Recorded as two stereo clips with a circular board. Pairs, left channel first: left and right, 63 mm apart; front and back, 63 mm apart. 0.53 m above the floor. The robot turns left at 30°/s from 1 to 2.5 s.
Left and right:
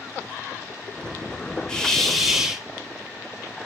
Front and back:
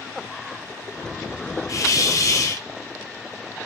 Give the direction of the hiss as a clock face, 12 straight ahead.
12 o'clock.